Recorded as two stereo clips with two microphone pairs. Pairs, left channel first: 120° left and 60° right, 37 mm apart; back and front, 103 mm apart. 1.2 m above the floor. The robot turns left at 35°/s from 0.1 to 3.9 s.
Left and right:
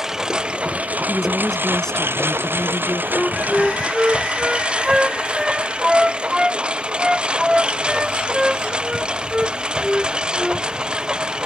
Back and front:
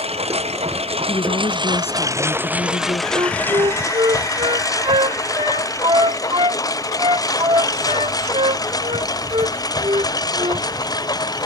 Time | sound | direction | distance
0.0 | a lawn mower | 15° left | ?
1.1 | a woman speaking | 135° right | ?
3.1 | a flute | 35° left | ?